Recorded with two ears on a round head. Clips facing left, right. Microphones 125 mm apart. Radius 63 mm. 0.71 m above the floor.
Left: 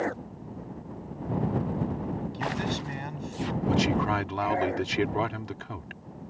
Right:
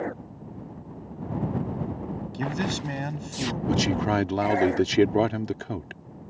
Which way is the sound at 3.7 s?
50° right (ahead or behind).